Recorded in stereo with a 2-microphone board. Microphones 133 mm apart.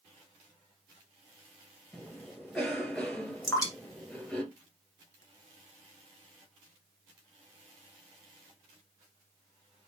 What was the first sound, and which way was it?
A cough, 5° left (ahead or behind).